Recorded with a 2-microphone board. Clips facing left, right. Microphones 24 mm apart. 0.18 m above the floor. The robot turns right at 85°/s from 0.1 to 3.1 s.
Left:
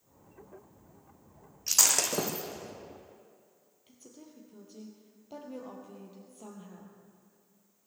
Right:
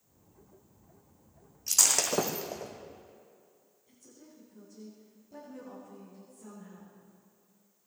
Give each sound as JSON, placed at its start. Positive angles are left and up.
{"t": 1.7, "sound": "breaking glass", "side_deg": 25, "distance_m": 1.9}
{"t": 3.9, "sound": "a woman speaking", "side_deg": 65, "distance_m": 4.0}